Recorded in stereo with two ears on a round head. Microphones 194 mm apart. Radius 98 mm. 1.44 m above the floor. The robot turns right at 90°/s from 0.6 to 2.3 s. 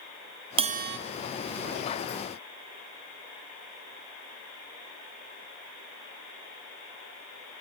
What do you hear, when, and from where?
0.6 s a bell: 155° right, 0.7 m; by 1.0 s 120° right, 0.7 m